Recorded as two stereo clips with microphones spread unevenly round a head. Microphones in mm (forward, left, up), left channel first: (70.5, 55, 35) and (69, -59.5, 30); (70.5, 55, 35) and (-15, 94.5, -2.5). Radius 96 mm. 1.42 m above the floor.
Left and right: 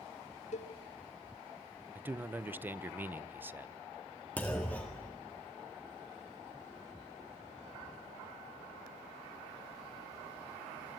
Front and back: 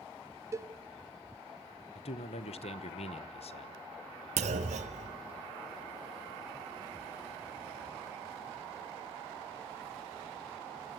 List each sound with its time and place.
0.5 s a cowbell: 85° left, 1.3 m
1.9 s a man speaking: 15° right, 1.1 m
4.4 s a clunk: 170° left, 1.6 m